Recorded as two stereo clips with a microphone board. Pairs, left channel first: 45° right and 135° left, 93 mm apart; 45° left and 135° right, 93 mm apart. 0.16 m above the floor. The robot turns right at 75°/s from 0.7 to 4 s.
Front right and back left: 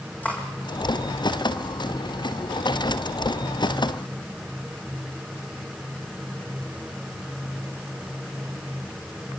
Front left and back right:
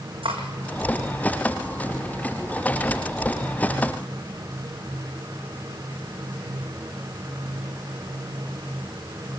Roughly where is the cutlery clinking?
Behind right.